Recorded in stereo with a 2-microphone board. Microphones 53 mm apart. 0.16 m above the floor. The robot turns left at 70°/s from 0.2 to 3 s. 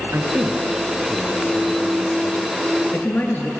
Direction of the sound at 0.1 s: 45° right (ahead or behind).